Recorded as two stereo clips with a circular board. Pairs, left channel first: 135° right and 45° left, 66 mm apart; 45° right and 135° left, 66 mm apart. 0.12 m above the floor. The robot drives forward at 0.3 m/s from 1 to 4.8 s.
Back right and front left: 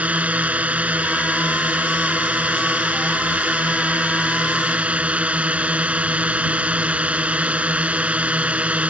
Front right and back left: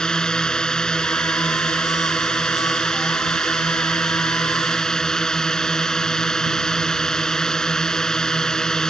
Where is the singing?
No singing in this recording.